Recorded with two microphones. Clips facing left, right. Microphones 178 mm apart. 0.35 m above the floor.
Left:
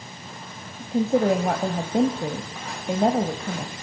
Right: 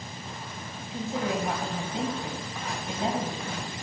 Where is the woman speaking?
60° left (ahead or behind), 1.6 m.